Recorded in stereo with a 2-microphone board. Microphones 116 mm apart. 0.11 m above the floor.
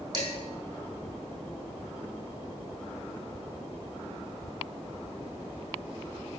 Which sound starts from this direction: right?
Dishes clattering, at 0.1 s.